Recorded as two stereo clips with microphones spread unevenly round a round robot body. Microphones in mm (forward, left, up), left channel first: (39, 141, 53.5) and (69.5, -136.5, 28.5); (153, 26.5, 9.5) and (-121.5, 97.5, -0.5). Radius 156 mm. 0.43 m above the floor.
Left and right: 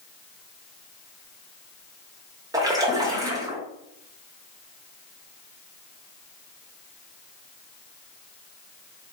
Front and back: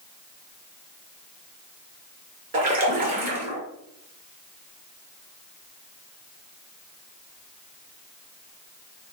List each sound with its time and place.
2.5 s a splash: 150° right, 0.8 m